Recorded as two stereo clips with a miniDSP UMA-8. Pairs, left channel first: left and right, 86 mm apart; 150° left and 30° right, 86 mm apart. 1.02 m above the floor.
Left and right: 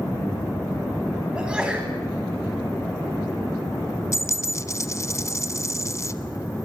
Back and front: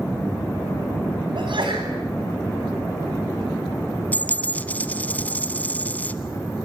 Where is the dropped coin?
95° left, 1.0 m.